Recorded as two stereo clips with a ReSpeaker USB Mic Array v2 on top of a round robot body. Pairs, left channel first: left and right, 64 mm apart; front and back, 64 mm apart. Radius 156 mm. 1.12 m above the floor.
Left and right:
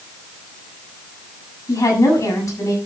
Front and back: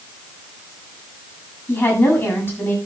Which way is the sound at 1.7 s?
60° left.